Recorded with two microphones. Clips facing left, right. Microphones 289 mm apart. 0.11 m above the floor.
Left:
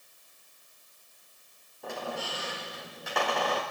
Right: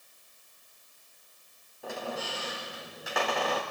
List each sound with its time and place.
1.8 s a squeak: centre (ahead or behind), 6 m